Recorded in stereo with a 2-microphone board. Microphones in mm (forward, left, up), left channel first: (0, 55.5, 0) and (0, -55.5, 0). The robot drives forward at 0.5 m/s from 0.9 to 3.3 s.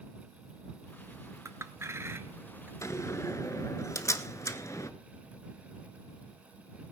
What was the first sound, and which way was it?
A clink, 25° right (ahead or behind).